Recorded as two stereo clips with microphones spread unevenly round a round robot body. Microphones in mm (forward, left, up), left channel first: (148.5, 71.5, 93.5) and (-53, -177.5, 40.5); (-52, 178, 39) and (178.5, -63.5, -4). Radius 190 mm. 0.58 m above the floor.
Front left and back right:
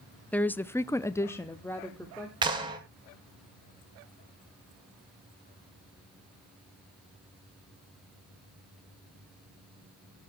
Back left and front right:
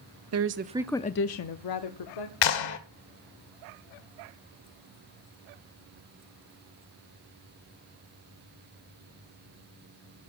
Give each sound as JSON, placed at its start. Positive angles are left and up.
{"t": 0.3, "sound": "a woman speaking", "azimuth_deg": -40, "distance_m": 0.9}
{"t": 2.4, "sound": "a clap", "azimuth_deg": 160, "distance_m": 1.9}